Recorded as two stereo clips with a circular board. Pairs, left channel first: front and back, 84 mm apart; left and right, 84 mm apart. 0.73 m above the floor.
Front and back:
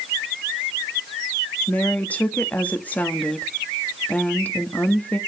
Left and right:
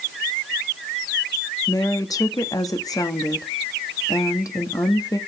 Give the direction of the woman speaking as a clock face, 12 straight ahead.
10 o'clock.